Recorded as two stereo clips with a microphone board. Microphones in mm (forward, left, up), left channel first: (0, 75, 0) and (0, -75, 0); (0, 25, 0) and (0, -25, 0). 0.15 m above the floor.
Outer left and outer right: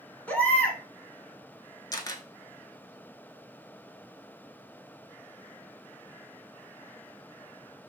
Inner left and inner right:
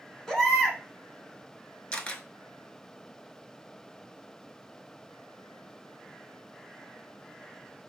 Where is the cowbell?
No cowbell in this recording.